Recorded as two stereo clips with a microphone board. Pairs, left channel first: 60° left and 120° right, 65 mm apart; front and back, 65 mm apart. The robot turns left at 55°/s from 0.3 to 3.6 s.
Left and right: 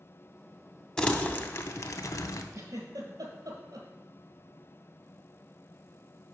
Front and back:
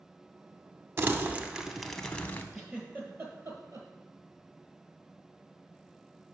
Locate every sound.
1.0 s crumpling: 135° left, 0.5 m; by 2.4 s 55° left, 0.5 m
2.5 s a giggle: 90° right, 1.2 m; by 3.9 s 150° right, 1.2 m